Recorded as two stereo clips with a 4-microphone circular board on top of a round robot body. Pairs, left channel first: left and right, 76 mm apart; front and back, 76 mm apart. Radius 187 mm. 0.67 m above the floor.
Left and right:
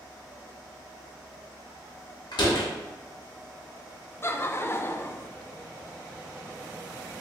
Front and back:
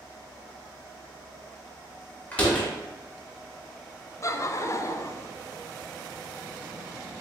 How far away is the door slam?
About 1.1 m.